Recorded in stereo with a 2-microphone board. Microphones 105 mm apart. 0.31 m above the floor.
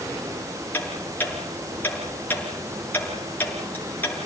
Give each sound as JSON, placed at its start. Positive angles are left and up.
{"t": 0.7, "sound": "ticking", "side_deg": 15, "distance_m": 6.0}